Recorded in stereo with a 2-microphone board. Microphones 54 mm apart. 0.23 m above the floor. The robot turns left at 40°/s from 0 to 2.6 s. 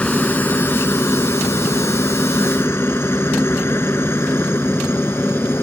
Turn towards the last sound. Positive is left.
turn(degrees=45)  # may be behind; listen again after turning